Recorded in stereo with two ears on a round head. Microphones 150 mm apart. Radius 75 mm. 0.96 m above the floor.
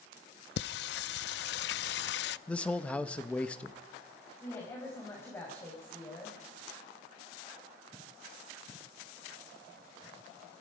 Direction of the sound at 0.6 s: 70° left (ahead or behind).